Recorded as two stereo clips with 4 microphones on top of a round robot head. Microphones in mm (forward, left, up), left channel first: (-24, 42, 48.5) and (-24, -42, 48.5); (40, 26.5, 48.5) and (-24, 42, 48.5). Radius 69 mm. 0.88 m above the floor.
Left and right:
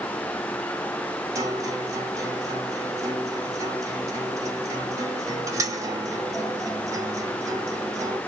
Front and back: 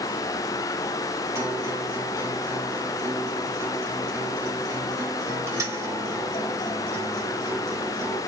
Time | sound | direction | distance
1.4 | a guitar | 145° right | 1.8 m